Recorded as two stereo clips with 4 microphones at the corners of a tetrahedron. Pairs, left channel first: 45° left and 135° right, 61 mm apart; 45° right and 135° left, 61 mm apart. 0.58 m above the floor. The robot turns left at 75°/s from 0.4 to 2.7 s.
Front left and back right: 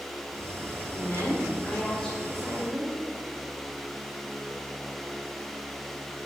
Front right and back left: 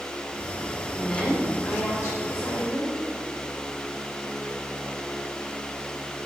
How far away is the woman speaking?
About 1.5 m.